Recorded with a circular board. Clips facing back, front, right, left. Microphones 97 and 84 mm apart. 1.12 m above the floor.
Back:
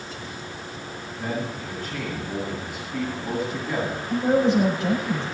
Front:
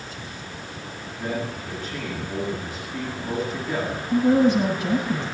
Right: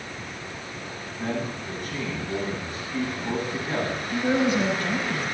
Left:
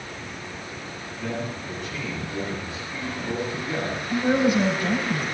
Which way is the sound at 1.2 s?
140° right.